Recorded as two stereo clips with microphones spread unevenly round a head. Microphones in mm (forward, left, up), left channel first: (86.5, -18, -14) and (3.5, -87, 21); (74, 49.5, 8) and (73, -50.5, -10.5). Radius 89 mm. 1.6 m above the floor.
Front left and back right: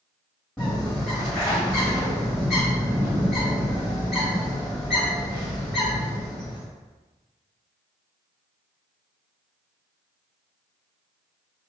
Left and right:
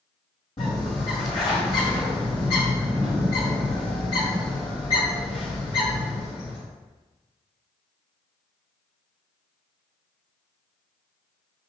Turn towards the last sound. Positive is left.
turn(degrees=135)